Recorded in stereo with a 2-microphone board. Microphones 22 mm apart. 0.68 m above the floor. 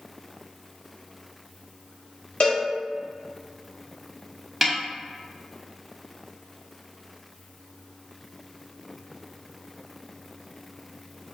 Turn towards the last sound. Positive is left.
turn(degrees=-5)  # may be behind; listen again after turning